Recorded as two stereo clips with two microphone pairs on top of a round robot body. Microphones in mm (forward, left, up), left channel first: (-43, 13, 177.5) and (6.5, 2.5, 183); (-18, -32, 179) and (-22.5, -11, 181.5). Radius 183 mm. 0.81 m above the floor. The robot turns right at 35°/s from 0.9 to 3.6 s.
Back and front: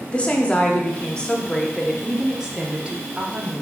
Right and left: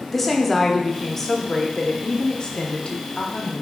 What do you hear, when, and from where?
0.1 s a woman speaking: 145° right, 0.7 m; by 3.6 s 50° right, 0.7 m